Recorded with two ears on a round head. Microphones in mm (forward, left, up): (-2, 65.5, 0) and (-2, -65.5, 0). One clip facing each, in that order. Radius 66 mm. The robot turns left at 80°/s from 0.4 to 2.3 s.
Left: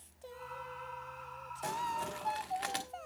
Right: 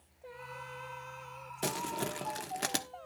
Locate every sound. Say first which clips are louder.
1.6 s crumpling: right 1 dB; 70° right (ahead or behind), 1.4 m; by 2.9 s 50° right (ahead or behind), 1.4 m